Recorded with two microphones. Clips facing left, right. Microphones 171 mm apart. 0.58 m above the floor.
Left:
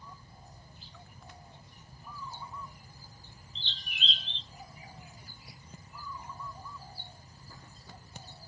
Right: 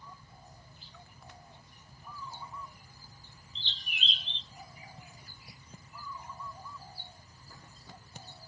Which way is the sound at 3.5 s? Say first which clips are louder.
Even; 75° right (ahead or behind).